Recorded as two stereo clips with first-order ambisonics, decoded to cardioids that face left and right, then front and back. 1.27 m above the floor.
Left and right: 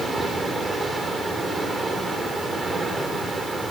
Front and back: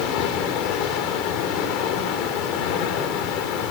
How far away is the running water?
About 3.5 m.